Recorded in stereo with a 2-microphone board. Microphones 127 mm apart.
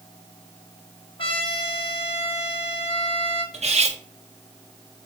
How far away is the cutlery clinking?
About 0.6 m.